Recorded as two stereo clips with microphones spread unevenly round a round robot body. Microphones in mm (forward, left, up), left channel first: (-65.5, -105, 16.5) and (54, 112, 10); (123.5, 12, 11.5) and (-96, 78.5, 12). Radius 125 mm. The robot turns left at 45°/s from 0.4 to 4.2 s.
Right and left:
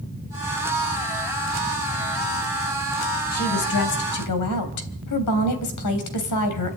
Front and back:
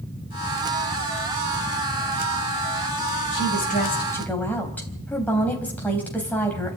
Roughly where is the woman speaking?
Ahead right.